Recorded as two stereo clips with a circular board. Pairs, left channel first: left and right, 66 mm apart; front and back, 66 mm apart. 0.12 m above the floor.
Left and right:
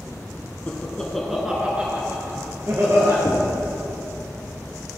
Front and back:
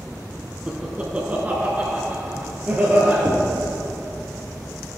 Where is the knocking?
150° left, 1.8 m.